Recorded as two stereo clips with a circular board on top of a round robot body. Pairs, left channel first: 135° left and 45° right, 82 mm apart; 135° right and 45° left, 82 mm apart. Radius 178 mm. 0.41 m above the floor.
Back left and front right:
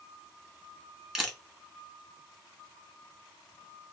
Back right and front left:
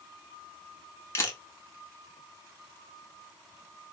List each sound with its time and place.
1.1 s a camera shutter: 120° right, 1.4 m